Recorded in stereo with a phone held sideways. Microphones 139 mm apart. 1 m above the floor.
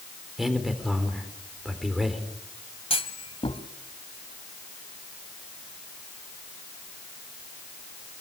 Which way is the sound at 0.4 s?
Centre (ahead or behind).